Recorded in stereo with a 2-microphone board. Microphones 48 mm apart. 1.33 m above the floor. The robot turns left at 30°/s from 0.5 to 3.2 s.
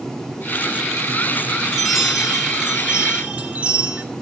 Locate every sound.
1.7 s a chime: 5° right, 1.4 m; by 4.0 s 45° right, 1.4 m